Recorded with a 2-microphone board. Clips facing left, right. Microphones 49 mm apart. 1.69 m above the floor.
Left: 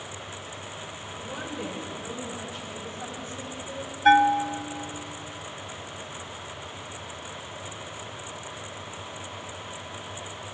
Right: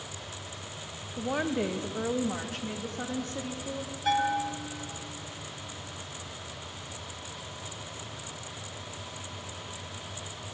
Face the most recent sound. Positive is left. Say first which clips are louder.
# left 9 dB
turn(degrees=45)  # may be behind; listen again after turning